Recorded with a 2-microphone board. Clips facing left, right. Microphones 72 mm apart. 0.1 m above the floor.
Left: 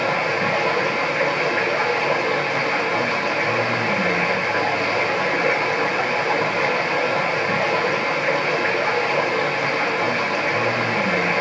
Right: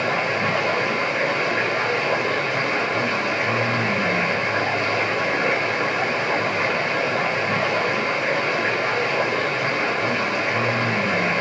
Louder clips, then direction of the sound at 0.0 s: Left 1 dB; 5° left (ahead or behind).